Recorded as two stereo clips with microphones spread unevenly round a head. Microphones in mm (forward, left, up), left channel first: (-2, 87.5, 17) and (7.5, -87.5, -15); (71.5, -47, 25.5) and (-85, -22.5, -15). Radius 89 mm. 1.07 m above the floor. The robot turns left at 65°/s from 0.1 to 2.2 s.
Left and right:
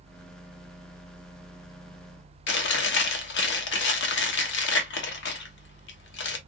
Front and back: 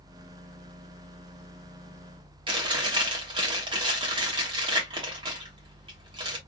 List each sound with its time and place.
2.5 s chewing: 100° left, 1.0 m